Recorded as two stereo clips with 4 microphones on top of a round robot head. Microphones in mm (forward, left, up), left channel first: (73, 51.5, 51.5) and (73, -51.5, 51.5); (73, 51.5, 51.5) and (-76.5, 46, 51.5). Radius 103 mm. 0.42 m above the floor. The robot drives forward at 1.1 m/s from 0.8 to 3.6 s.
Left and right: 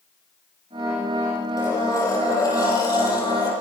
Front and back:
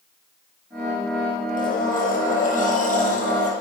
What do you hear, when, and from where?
1.6 s a blender: 30° left, 9.5 m; by 3.5 s 40° left, 8 m